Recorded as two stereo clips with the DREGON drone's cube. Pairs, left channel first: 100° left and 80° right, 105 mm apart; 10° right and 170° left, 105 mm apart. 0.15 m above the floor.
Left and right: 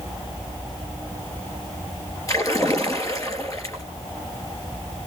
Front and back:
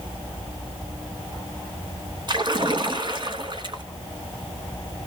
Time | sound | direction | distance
2.3 | a splash | 145° left | 2.5 m